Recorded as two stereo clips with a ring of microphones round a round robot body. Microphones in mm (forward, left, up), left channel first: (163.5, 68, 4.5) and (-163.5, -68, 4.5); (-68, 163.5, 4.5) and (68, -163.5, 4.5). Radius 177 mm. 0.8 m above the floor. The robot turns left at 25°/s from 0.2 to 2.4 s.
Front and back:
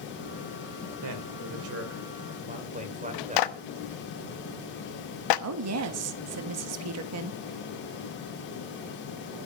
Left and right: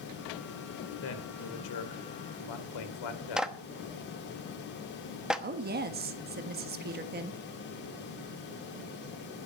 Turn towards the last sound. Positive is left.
turn(degrees=-125)